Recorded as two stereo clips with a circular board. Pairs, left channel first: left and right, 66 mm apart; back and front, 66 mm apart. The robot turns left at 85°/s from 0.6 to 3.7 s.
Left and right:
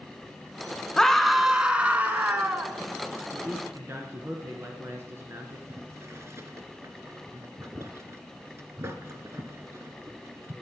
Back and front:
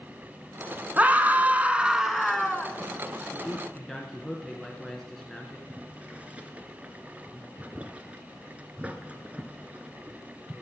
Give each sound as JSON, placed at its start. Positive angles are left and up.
{"t": 1.0, "sound": "a scream", "azimuth_deg": 25, "distance_m": 1.2}
{"t": 3.3, "sound": "a man speaking", "azimuth_deg": -65, "distance_m": 2.0}
{"t": 5.7, "sound": "boiling", "azimuth_deg": -60, "distance_m": 1.5}